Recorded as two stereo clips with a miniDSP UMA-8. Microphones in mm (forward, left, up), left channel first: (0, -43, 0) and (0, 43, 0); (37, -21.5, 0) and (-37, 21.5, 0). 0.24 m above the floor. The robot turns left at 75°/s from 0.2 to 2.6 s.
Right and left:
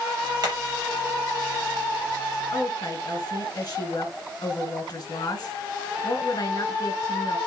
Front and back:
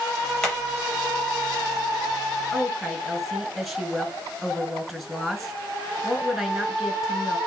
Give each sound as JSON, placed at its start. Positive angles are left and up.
{"t": 0.4, "sound": "hammering", "azimuth_deg": 55, "distance_m": 5.0}
{"t": 2.5, "sound": "a woman speaking", "azimuth_deg": -115, "distance_m": 2.5}